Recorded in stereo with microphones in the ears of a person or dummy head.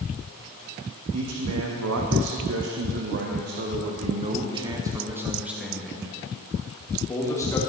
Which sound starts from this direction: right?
A man speaking, at 1.1 s.